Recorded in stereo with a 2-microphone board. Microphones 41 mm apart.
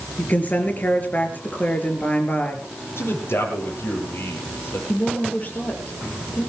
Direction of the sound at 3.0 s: 75° left (ahead or behind).